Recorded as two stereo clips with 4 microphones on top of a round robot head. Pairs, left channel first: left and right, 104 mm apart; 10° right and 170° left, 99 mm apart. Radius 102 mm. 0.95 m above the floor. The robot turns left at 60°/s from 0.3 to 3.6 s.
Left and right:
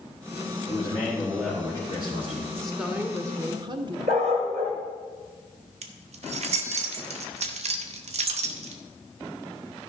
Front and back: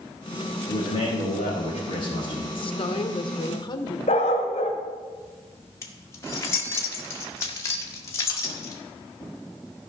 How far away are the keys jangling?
About 1.0 m.